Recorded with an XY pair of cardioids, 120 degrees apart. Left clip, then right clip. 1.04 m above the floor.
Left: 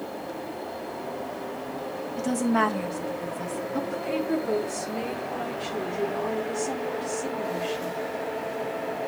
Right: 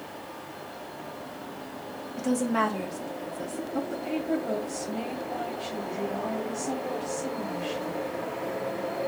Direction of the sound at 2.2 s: 5° left.